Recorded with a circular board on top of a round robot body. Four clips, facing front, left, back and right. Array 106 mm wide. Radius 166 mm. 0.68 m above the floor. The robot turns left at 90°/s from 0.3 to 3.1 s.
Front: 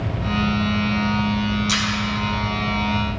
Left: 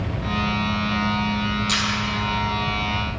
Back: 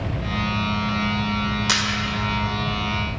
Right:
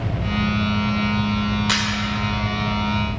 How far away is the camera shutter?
About 2 m.